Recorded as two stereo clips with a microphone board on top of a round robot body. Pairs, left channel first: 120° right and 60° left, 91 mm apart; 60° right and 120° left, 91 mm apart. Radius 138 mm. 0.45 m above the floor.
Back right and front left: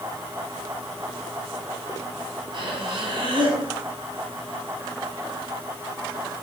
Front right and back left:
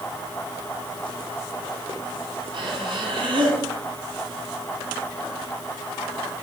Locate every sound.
2.5 s breathing: 95° left, 2.5 m